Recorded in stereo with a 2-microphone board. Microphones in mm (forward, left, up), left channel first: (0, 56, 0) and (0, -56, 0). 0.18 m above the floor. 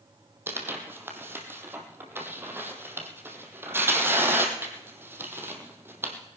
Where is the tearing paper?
20° right (ahead or behind), 1.6 m.